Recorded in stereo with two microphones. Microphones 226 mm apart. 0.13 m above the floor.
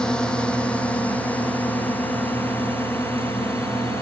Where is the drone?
5° left (ahead or behind); by 4.0 s 10° left (ahead or behind).